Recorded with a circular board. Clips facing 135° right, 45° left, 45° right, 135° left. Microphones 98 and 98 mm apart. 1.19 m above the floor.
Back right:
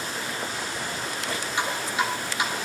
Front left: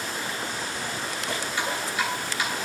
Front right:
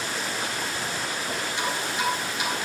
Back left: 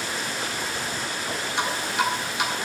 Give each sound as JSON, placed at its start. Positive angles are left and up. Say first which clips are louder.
{"t": 1.6, "sound": "dripping", "louder": "back right 3 dB, back left 4 dB", "azimuth_deg": 160, "distance_m": 3.0}